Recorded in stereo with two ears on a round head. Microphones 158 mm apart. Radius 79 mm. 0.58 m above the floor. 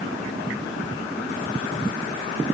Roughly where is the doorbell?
No doorbell in this recording.